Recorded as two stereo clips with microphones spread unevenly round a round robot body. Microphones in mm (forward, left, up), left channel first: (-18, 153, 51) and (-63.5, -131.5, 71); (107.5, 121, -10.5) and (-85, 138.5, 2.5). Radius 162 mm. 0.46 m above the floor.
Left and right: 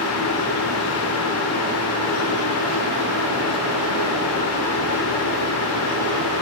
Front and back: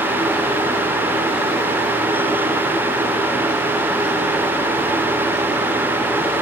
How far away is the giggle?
No giggle in this recording.